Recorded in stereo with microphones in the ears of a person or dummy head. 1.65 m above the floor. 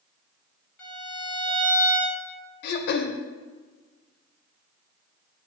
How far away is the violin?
About 1.7 m.